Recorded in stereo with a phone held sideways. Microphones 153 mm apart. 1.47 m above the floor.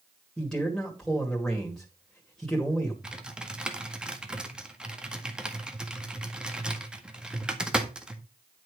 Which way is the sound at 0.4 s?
5° left (ahead or behind).